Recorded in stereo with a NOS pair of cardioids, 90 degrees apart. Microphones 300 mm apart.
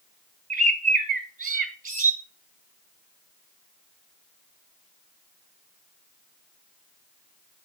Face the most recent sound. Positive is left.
turn(degrees=-25)